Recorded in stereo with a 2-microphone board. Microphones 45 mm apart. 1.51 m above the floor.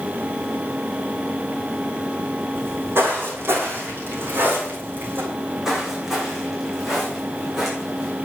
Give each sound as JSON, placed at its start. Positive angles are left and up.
{"t": 2.5, "sound": "footsteps", "side_deg": -55, "distance_m": 5.5}
{"t": 5.3, "sound": "footsteps", "side_deg": -10, "distance_m": 5.0}